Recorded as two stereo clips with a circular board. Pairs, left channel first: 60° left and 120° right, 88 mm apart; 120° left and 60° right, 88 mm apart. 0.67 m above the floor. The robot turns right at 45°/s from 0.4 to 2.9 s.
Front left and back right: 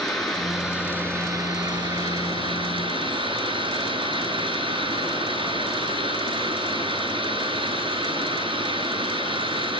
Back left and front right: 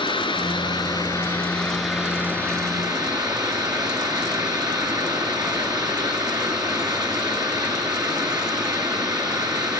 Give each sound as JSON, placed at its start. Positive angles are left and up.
{"t": 0.0, "sound": "running water", "azimuth_deg": 145, "distance_m": 7.0}